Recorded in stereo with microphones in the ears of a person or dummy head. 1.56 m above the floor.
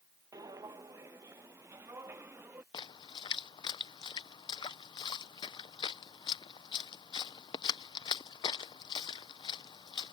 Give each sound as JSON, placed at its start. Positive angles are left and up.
{"t": 0.3, "sound": "footsteps", "side_deg": -20}
{"t": 2.7, "sound": "a splash", "side_deg": 20}